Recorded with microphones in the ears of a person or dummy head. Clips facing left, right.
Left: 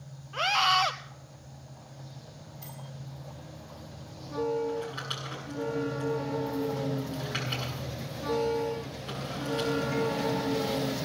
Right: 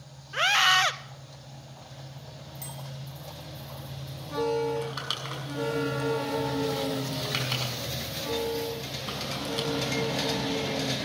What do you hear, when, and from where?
0.3 s a scream: 20° right (ahead or behind), 0.6 m
2.6 s a bicycle bell: 70° right (ahead or behind), 8.5 m
4.7 s crumpling: 75° right (ahead or behind), 6 m